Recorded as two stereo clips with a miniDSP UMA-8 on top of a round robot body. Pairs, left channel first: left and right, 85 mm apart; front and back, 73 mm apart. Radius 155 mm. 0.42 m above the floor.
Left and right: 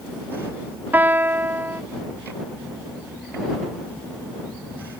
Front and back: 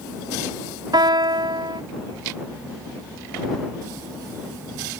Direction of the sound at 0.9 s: 160° right.